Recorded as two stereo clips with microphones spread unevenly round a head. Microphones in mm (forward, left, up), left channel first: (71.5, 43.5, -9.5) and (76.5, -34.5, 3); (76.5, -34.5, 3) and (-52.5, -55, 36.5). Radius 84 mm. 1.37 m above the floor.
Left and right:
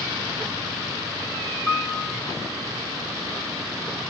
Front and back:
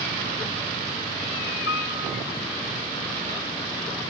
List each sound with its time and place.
1.7 s a piano: 10° left, 1.6 m